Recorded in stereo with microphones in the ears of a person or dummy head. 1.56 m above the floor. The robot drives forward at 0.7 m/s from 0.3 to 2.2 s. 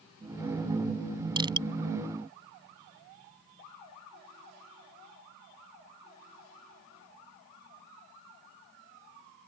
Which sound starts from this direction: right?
Crushing, at 1.4 s.